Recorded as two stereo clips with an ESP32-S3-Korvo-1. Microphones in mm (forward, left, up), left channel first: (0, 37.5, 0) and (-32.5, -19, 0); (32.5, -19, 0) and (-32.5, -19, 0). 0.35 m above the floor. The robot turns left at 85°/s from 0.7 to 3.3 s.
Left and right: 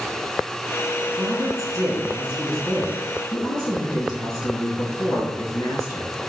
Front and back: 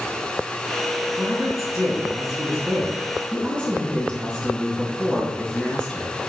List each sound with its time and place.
1.2 s a woman speaking: 100° right, 4 m; by 6.1 s 75° left, 4 m